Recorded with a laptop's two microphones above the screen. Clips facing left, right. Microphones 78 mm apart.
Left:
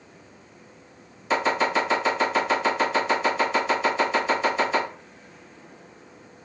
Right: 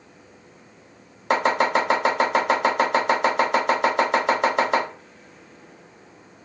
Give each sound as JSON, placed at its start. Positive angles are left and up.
{"t": 1.3, "sound": "chopping", "side_deg": -65, "distance_m": 1.1}